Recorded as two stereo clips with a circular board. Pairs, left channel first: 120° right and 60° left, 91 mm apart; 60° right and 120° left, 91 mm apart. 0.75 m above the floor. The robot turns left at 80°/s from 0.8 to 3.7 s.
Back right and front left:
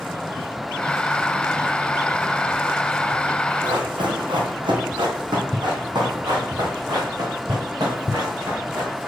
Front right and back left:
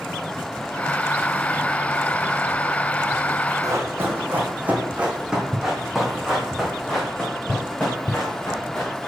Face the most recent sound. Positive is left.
turn(degrees=10)